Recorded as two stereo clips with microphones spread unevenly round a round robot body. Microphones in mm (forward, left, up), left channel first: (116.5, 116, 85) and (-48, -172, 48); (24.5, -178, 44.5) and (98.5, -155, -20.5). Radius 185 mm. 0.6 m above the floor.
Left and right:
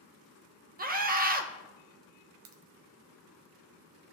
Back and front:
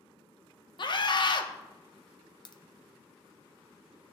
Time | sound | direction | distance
0.8 | a scream | 100° right | 1.0 m
2.5 | a crack | 115° right | 1.0 m